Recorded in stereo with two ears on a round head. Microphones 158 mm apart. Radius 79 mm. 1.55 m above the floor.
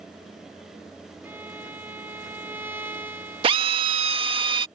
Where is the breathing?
I don't hear breathing.